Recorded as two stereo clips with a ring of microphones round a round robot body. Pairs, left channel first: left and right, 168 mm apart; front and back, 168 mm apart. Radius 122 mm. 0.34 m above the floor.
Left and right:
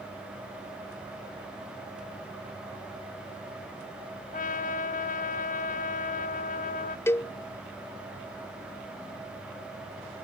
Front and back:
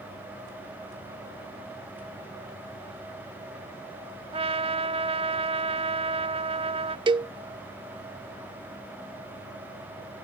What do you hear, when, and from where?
4.3 s a trumpet: 130° left
7.1 s a cowbell: 155° left